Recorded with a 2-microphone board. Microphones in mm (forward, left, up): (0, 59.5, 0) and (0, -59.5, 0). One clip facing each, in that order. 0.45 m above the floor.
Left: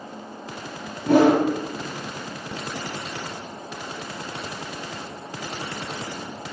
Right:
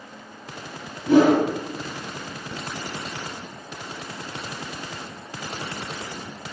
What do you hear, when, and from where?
1.1 s a whoosh: 55° left (ahead or behind), 1.4 m